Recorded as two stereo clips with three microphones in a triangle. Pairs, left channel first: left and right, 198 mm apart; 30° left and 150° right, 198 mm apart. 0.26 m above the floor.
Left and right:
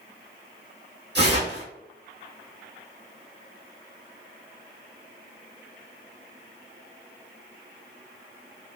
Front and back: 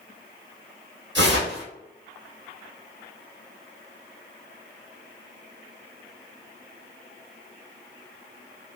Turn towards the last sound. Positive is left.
turn(degrees=-125)